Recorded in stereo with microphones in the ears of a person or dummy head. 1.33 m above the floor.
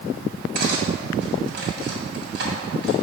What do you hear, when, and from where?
0.6 s cutlery clinking: 70° right (ahead or behind), 1.8 m